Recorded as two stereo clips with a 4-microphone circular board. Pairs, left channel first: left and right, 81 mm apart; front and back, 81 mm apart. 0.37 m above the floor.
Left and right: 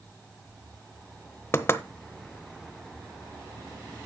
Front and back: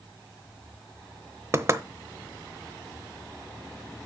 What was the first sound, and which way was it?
Knocking, 135° left.